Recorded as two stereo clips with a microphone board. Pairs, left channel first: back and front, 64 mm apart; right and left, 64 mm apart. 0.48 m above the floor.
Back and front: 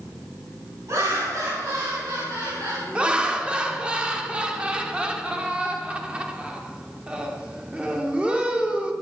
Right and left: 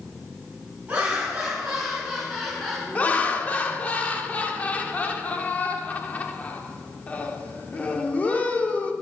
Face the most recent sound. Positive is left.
turn(degrees=-55)